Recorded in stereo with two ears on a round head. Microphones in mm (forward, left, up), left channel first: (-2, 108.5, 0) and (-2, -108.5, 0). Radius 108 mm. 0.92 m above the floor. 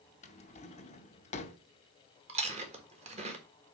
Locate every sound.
0.2 s a drawer: 30° left (ahead or behind), 0.8 m
2.3 s chewing: 25° right (ahead or behind), 1.5 m